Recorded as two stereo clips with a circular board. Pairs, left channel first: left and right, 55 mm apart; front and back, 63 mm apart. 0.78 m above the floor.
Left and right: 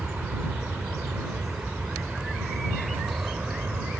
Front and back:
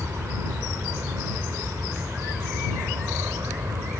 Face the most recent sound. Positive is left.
turn(degrees=-150)